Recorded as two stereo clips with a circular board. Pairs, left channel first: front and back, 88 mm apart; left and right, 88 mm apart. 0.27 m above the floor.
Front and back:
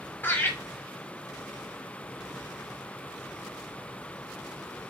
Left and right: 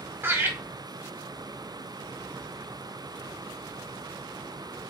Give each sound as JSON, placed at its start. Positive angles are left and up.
{"t": 0.2, "sound": "laughter", "azimuth_deg": -50, "distance_m": 1.5}